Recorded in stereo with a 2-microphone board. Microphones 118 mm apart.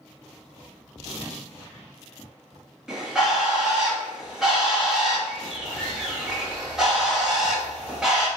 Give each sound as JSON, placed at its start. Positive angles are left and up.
{"t": 2.9, "sound": "a bird", "side_deg": -5, "distance_m": 1.3}